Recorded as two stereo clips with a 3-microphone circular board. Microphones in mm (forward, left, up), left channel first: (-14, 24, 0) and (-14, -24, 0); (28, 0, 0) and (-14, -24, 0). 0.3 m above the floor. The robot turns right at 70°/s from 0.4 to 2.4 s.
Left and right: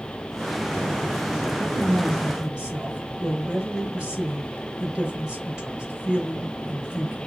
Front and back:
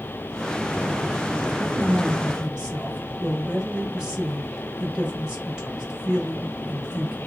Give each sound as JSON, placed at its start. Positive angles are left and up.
{"t": 1.6, "sound": "a man speaking", "azimuth_deg": 180, "distance_m": 1.5}